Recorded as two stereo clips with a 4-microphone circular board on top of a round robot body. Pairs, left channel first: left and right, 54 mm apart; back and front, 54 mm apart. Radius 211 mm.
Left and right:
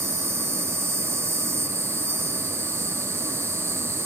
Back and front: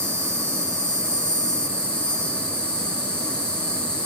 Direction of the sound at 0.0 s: 105° right.